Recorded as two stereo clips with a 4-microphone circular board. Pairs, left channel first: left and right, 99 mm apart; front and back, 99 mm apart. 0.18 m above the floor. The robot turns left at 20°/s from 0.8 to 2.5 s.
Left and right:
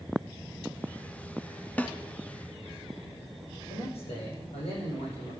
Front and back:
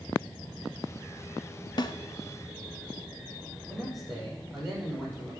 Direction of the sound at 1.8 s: 20° left.